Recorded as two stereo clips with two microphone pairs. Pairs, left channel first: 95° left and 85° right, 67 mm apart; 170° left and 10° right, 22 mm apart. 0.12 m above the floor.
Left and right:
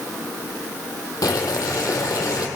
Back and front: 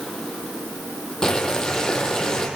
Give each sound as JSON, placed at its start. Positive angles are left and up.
{"t": 1.2, "sound": "boiling", "azimuth_deg": 115, "distance_m": 3.0}